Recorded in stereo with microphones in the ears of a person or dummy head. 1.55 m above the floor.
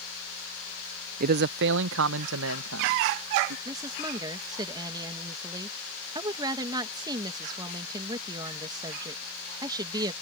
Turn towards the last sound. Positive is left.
turn(degrees=-20)  # may be behind; listen again after turning